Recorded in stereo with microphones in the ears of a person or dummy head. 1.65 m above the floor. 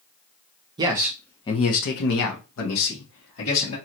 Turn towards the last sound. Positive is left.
turn(degrees=80)